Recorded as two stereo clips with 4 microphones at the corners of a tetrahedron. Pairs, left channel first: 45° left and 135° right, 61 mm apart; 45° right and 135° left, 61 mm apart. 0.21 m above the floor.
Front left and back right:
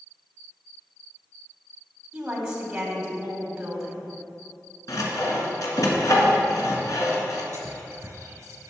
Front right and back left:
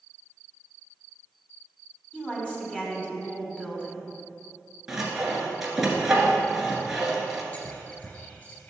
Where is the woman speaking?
80° right, 1.7 m.